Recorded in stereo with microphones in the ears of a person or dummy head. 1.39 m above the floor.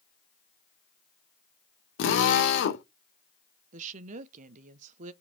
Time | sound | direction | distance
2.0 | a drill | 65° left (ahead or behind) | 1.6 m
3.7 | a woman speaking | 40° right (ahead or behind) | 0.6 m